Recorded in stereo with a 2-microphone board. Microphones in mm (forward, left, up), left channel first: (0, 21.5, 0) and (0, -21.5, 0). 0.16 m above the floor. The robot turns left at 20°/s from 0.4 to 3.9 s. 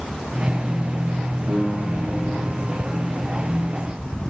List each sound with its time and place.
1.5 s a piano: 75° right (ahead or behind), 5 m; by 2.8 s 50° right (ahead or behind), 5 m